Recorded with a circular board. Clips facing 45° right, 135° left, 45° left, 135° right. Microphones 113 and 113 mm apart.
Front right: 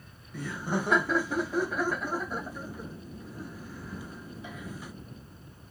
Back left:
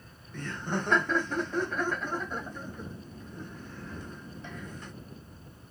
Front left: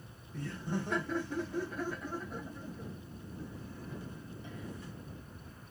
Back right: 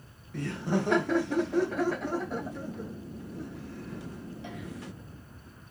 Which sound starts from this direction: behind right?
Laughter, at 0.3 s.